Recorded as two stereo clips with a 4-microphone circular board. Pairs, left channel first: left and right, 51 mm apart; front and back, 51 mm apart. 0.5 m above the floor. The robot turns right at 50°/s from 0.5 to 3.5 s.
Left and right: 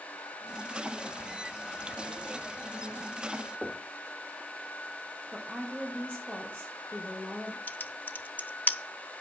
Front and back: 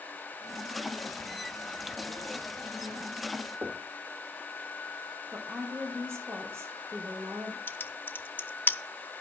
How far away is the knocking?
About 1.1 m.